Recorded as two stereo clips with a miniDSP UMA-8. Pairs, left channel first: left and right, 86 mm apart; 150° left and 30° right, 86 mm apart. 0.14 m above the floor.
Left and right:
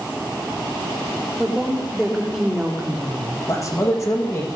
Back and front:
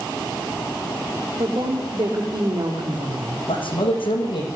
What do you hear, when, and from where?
1.4 s a woman speaking: straight ahead, 6 m
3.5 s a man speaking: 140° left, 7.5 m